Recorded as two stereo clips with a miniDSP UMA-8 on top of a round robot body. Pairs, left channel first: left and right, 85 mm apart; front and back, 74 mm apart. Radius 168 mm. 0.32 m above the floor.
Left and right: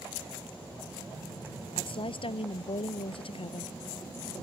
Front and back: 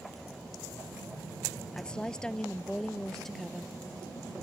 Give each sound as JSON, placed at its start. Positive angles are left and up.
{"t": 1.7, "sound": "a woman speaking", "azimuth_deg": 80}